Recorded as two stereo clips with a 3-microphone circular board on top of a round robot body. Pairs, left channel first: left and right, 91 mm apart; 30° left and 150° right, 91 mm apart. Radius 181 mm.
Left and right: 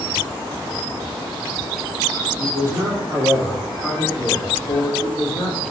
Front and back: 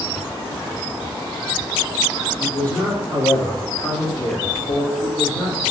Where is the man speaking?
40° right, 2 m; by 5.6 s 90° left, 2.5 m.